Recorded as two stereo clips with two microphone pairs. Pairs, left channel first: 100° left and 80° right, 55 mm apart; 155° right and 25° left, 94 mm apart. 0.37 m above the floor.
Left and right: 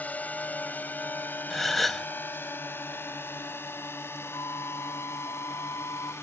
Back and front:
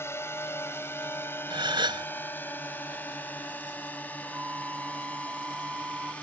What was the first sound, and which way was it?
A drone, 150° left.